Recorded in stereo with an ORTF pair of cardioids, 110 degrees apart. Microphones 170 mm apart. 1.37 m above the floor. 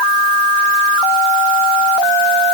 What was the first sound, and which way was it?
Only background noise.